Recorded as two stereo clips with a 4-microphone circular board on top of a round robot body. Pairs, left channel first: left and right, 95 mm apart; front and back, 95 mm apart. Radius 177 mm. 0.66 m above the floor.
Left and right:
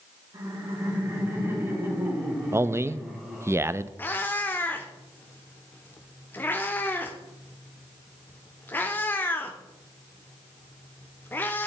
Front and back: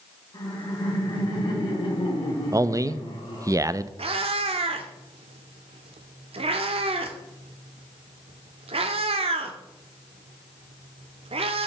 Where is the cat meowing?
160° left, 0.7 m.